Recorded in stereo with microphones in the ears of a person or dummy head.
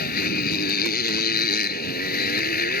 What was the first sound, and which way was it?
A motorcycle, 60° left (ahead or behind).